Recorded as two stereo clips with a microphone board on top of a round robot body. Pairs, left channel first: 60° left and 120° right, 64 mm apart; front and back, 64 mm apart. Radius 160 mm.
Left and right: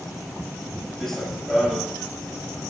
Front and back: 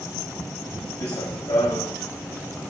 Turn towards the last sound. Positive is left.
turn(degrees=-20)